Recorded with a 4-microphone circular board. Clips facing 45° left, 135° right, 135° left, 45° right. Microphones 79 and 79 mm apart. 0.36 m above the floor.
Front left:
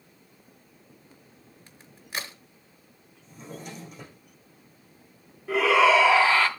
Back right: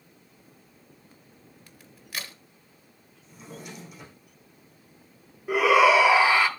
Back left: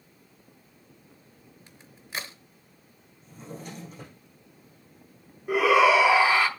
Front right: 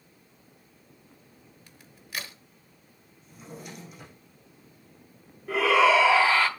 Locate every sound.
1.7 s a crack: 90° left, 0.9 m
3.2 s a drawer: 90° left, 6.5 m
5.5 s a shout: straight behind, 1.1 m